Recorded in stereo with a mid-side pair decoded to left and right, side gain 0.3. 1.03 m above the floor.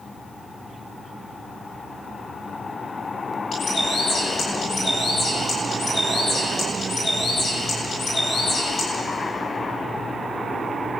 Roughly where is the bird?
Left.